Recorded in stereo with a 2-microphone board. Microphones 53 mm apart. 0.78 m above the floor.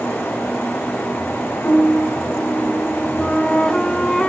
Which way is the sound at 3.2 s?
15° left (ahead or behind).